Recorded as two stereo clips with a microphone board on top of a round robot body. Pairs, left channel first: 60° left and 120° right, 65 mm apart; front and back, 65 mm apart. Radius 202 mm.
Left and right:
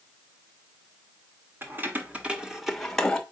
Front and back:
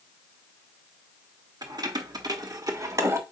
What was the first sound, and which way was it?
Keys jangling, 175° right.